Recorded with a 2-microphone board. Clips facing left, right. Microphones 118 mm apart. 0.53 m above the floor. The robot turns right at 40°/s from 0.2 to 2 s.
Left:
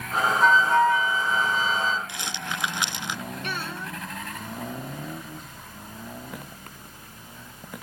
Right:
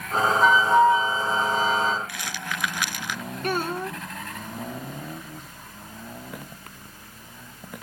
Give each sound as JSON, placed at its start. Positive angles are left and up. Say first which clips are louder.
{"t": 0.4, "sound": "a flute", "louder": "right 2 dB", "azimuth_deg": -175}
{"t": 2.1, "sound": "a rattle", "louder": "even", "side_deg": 25}
{"t": 3.4, "sound": "a child speaking", "louder": "right 11 dB", "side_deg": -45}